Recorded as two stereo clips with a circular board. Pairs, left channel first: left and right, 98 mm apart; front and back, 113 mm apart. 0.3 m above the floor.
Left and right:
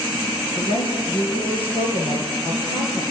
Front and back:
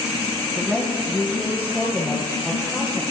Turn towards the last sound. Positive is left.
turn(degrees=100)